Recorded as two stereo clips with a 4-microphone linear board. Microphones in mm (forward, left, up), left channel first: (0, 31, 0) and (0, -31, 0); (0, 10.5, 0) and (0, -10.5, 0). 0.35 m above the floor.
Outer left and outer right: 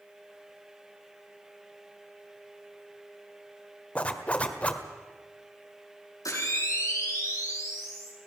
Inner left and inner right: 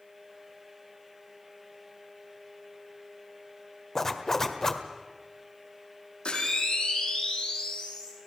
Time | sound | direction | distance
4.0 | a zipper | 25° left (ahead or behind) | 1.4 m
6.2 | a camera shutter | 70° left (ahead or behind) | 9 m